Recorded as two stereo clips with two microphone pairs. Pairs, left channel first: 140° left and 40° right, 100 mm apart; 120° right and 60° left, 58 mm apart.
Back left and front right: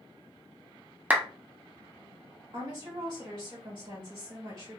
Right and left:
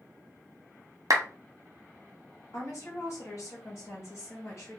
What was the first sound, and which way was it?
A clap, 35° left.